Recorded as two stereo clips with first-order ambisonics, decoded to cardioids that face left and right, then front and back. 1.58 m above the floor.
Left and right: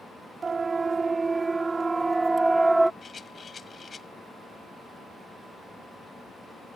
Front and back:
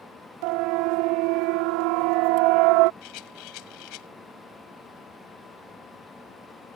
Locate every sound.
0.4 s a siren: 165° right; by 2.9 s 175° right
3.0 s a rattle: 20° left